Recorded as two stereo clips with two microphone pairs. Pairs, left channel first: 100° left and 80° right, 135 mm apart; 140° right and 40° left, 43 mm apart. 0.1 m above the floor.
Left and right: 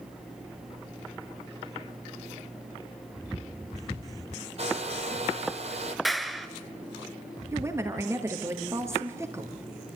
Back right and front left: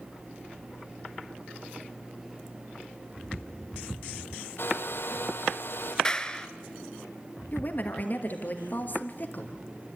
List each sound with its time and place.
4.6 s a hair dryer: 115° right, 1.3 m
6.0 s a clap: 170° right, 0.9 m
7.5 s a woman speaking: 140° right, 2 m